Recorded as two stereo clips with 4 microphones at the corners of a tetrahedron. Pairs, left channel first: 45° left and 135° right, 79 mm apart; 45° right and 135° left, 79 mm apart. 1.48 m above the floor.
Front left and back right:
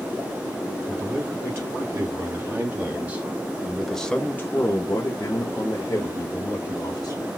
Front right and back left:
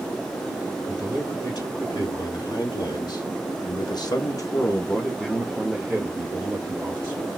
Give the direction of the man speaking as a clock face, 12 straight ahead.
3 o'clock.